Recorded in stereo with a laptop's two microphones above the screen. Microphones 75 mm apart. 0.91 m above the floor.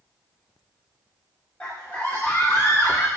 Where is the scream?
20° left (ahead or behind), 2 m; by 3.1 s 35° left (ahead or behind), 1.5 m.